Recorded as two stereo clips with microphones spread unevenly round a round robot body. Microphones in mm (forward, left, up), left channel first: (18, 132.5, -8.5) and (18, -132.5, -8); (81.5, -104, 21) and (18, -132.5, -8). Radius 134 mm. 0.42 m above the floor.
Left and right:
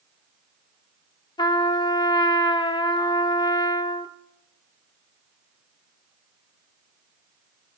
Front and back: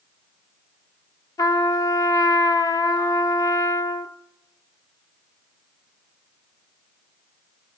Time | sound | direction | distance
1.4 | a trumpet | 40° left | 0.8 m